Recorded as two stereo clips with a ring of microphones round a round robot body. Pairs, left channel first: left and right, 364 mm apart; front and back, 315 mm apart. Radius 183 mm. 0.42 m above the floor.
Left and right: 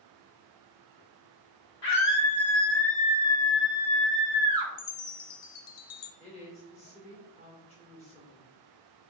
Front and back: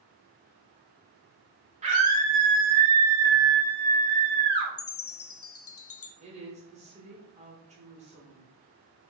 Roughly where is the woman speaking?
Behind left.